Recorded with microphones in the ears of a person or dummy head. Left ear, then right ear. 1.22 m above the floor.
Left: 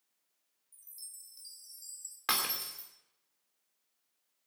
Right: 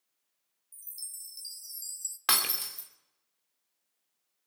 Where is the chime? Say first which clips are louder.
Right 7 dB; 15° right (ahead or behind), 0.5 m.